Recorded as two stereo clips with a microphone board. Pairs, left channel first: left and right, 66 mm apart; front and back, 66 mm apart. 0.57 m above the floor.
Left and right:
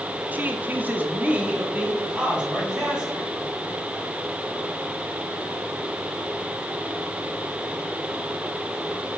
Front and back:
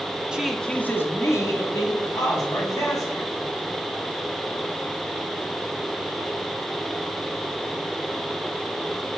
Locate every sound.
0.3 s a man speaking: 120° right, 0.7 m; by 3.3 s 10° right, 2.5 m